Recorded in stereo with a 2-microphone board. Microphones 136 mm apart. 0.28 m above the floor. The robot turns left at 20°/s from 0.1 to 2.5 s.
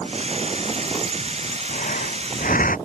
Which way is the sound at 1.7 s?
70° left (ahead or behind).